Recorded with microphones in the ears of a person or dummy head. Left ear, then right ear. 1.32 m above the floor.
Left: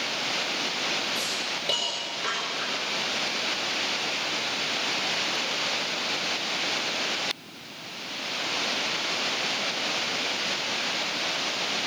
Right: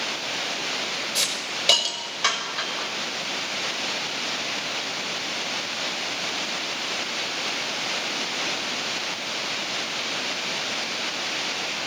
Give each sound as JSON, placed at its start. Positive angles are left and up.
{"t": 1.1, "sound": "a hiss", "side_deg": -40, "distance_m": 6.0}